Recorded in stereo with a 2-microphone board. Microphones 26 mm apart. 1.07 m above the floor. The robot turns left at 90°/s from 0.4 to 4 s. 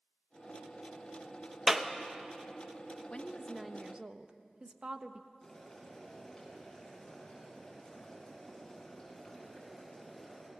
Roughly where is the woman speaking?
Ahead left.